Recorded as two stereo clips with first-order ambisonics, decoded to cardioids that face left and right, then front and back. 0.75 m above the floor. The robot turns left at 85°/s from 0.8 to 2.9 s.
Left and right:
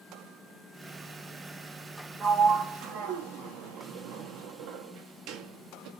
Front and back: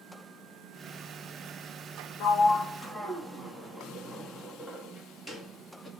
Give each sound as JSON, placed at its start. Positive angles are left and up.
{"t": 2.2, "sound": "a sliding door", "azimuth_deg": -25, "distance_m": 0.9}